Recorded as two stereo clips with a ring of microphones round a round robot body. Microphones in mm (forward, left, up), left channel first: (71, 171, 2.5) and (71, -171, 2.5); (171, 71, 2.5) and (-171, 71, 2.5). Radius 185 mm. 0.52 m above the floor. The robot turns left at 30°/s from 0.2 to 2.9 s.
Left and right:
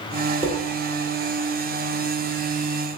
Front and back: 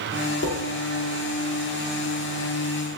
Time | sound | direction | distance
0.4 | dishes clattering | 25° right | 0.6 m